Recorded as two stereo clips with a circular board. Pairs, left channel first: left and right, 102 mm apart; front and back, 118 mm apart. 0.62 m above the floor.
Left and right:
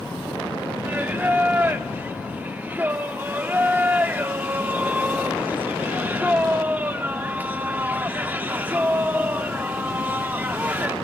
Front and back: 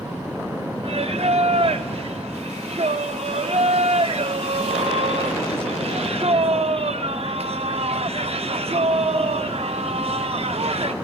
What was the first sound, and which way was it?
Singing, 160° right.